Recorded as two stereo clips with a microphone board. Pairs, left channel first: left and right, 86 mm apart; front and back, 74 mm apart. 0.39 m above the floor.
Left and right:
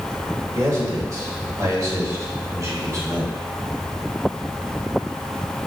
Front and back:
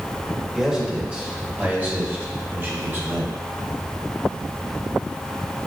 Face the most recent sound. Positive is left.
turn(degrees=-130)